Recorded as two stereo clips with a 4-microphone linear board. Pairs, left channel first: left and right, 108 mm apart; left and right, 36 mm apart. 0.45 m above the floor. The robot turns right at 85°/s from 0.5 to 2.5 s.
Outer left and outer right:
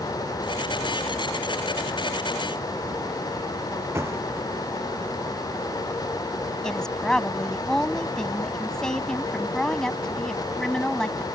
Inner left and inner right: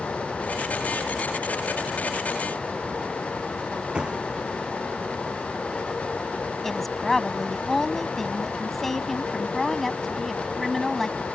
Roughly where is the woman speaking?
Centre.